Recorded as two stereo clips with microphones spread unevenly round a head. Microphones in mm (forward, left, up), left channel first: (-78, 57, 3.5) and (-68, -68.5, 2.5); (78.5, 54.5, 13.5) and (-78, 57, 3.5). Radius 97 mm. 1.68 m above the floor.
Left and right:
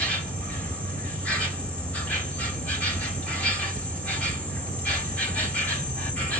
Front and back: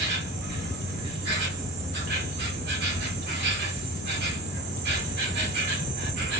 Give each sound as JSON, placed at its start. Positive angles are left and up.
{"t": 0.0, "sound": "an insect", "azimuth_deg": 175, "distance_m": 2.5}